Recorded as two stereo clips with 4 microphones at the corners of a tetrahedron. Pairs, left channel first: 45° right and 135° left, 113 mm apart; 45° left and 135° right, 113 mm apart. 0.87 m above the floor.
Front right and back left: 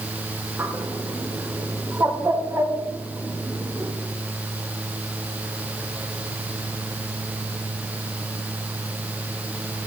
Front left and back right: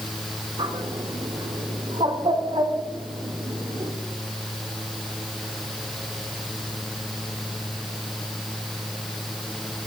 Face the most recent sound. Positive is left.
turn(degrees=-160)